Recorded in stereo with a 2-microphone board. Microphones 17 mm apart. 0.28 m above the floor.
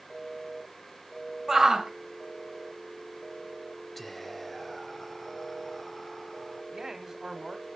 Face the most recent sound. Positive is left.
turn(degrees=-30)  # may be behind; listen again after turning